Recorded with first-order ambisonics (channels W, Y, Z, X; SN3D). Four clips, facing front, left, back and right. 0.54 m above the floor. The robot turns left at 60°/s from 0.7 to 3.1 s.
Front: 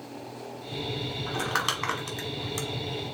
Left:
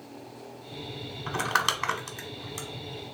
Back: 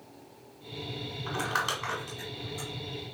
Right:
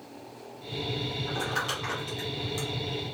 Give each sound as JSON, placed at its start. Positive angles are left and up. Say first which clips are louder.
{"t": 1.3, "sound": "crumpling", "louder": "left 7 dB, front 1 dB", "azimuth_deg": 90, "distance_m": 1.2}